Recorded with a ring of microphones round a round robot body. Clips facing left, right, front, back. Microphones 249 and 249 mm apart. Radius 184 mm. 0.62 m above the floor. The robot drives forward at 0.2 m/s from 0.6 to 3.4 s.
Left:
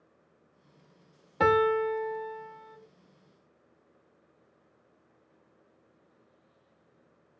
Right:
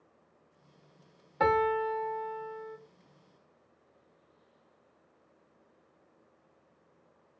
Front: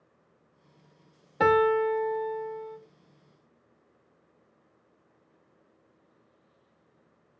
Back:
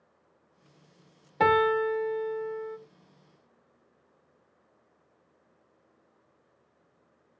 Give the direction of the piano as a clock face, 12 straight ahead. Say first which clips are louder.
Left 4 dB, front 2 dB; 9 o'clock.